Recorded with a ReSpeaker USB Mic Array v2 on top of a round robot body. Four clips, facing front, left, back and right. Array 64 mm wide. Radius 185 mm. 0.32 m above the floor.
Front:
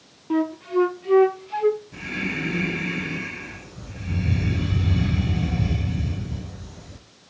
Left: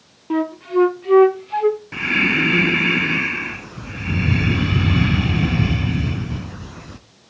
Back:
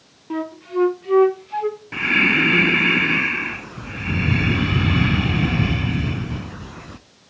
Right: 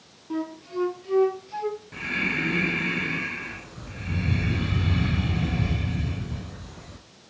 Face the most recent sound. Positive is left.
turn(degrees=150)